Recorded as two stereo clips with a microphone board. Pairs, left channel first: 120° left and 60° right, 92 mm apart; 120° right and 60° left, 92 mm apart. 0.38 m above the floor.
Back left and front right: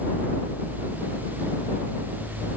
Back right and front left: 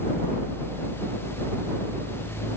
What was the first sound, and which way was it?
Only background noise.